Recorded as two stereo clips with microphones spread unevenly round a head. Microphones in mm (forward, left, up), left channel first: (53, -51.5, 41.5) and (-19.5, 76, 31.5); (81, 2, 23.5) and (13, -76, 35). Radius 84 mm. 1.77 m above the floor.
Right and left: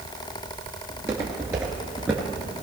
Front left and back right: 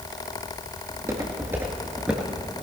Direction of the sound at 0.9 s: 175° right.